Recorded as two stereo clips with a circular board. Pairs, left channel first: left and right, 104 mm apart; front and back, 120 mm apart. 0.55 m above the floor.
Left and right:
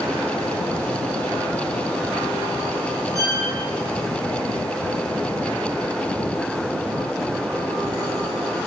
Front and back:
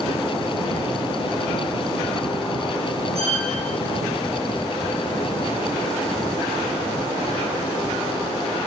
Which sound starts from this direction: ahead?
A violin, at 3.1 s.